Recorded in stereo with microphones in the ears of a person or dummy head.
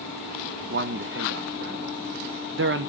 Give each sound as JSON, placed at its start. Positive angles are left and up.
{"t": 0.7, "sound": "a man speaking", "side_deg": -60, "distance_m": 0.5}